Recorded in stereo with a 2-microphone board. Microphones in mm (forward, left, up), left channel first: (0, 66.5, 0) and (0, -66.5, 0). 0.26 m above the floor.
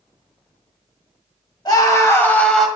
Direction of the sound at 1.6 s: 35° left (ahead or behind).